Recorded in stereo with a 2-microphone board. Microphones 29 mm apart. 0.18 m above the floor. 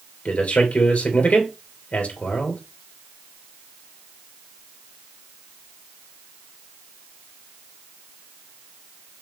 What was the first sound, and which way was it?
A man speaking, 60° left (ahead or behind).